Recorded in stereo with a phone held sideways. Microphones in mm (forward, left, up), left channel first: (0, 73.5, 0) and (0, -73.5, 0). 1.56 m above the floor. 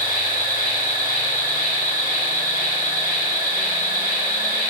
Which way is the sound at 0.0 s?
70° right (ahead or behind).